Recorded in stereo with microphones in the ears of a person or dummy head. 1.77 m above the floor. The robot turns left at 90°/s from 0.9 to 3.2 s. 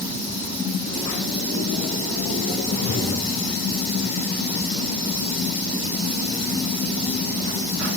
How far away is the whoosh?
About 4 m.